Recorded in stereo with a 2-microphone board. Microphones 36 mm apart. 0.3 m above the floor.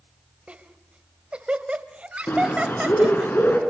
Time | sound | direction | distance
0.5 | laughter | 35° right (ahead or behind) | 1.6 m
2.3 | a bird | 65° left (ahead or behind) | 3.5 m